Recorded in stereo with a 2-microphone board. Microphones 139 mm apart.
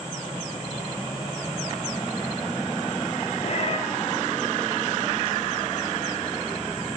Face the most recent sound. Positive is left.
turn(degrees=45)  # may be behind; listen again after turning